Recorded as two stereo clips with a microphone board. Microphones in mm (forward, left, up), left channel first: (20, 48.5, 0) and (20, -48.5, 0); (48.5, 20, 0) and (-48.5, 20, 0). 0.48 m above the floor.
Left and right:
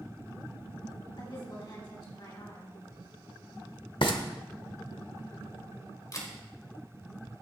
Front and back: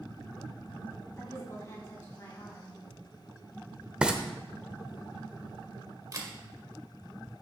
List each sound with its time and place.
1.2 s a woman speaking: 60° left, 4 m
4.0 s frying: 100° left, 1.0 m
6.1 s a camera shutter: 135° left, 1.7 m